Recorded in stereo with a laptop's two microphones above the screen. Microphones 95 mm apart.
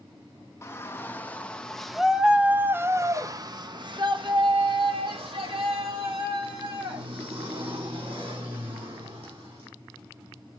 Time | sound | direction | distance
0.6 | a shout | 25° left (ahead or behind) | 1.6 m